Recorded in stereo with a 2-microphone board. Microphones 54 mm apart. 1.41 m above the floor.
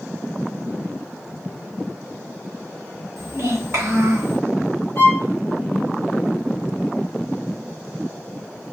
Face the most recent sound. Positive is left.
turn(degrees=50)  # may be behind; listen again after turning